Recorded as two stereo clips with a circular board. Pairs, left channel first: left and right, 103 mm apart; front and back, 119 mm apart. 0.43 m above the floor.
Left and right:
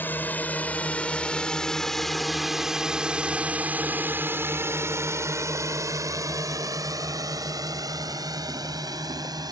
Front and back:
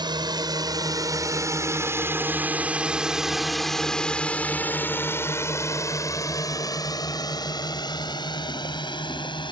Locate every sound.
0.0 s a drone: 155° left; by 9.5 s 45° right